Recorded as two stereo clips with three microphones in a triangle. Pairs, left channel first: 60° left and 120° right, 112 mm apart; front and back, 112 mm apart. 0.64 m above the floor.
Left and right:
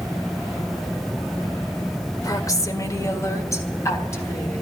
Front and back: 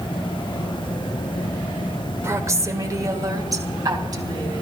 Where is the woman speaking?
115° left, 1.8 m; by 4.6 s 125° left, 5 m.